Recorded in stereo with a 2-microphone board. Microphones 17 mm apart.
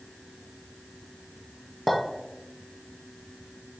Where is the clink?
5° left (ahead or behind), 1.4 m.